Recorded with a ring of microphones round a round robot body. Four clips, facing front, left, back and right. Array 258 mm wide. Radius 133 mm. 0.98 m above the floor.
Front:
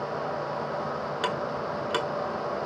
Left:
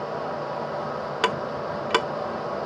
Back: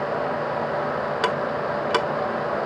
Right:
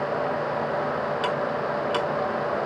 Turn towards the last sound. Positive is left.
turn(degrees=125)